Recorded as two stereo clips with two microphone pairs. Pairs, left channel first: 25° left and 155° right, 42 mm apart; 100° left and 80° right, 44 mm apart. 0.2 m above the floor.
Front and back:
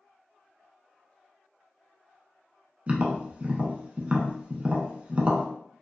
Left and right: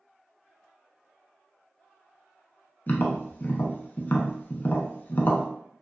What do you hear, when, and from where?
2.9 s tapping: 145° left, 0.5 m